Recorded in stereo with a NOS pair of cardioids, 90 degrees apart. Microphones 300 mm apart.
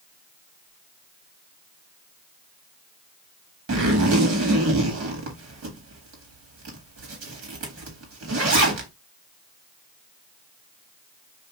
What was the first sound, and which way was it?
A zipper, 50° right.